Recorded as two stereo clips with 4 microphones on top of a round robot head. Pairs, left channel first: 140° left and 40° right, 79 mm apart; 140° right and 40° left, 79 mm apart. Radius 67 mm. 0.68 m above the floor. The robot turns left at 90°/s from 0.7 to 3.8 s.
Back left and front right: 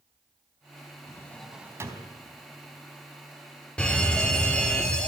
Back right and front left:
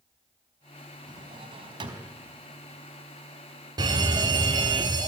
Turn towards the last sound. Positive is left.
turn(degrees=60)